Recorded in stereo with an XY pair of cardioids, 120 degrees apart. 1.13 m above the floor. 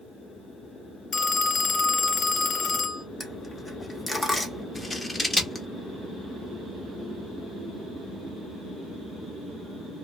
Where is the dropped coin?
5° left, 1.2 m.